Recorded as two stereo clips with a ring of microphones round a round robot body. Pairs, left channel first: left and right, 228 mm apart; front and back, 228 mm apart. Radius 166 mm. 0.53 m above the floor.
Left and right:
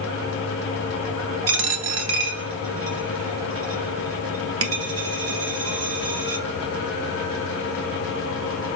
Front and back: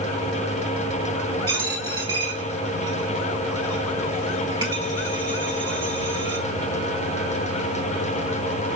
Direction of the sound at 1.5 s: 100° right.